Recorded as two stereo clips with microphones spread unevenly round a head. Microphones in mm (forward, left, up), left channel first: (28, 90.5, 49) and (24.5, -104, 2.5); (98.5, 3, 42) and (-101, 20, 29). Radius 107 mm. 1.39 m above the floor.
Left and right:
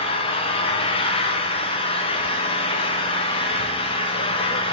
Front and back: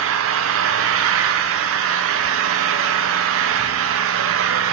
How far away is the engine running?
About 0.8 m.